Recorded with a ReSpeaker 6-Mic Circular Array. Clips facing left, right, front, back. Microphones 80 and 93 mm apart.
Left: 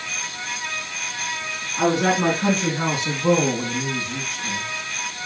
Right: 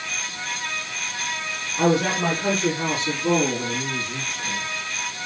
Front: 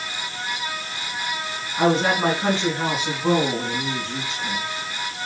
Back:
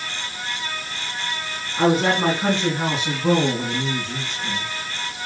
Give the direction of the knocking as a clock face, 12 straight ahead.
No knocking in this recording.